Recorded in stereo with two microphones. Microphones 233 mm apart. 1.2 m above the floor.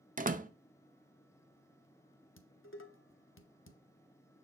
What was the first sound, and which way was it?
A door slam, 35° right (ahead or behind).